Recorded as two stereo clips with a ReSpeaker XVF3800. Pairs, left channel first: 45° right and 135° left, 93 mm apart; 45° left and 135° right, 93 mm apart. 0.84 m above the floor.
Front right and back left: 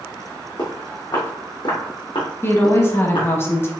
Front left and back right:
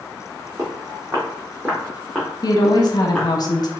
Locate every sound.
0.6 s footsteps: 80° right, 2.5 m; by 3.3 s 35° right, 1.6 m
2.4 s a woman speaking: 15° left, 0.9 m